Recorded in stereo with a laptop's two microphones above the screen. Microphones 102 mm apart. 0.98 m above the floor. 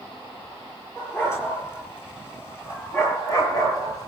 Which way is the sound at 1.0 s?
25° left (ahead or behind).